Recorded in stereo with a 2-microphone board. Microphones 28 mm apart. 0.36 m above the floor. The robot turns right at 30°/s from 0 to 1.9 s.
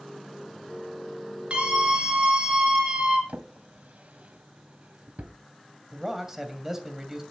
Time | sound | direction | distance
1.5 | a scream | 45° right (ahead or behind) | 5 m
3.3 | a drawer | 65° right (ahead or behind) | 1.5 m
5.9 | a man speaking | 15° right (ahead or behind) | 2.5 m